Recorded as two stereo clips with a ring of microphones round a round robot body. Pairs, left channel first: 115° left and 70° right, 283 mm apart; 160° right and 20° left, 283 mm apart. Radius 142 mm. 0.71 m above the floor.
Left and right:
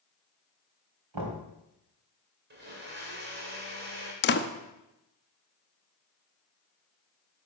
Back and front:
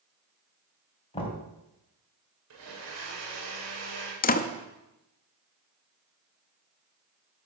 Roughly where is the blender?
Ahead.